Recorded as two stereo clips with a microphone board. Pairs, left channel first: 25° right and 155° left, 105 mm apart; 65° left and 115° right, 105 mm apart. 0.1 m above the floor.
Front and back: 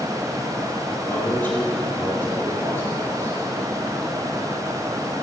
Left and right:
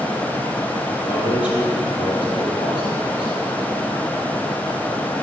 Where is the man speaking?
45° left, 3 m.